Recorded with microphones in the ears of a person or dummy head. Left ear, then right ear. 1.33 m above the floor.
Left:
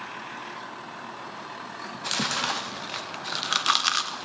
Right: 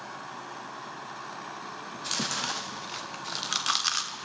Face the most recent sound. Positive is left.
turn(degrees=20)  # may be behind; listen again after turning